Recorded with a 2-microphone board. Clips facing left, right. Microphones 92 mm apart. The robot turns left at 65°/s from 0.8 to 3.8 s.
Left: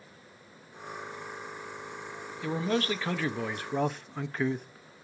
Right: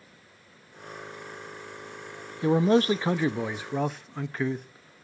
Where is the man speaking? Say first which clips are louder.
Right 8 dB; 90° right, 0.5 m; by 4.7 s straight behind, 0.5 m.